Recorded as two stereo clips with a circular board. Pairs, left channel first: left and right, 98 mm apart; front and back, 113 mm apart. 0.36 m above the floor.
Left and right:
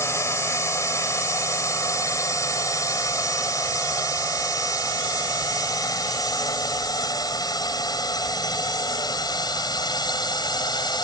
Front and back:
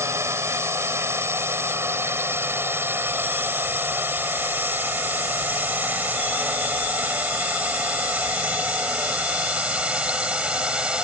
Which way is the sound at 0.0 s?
130° left.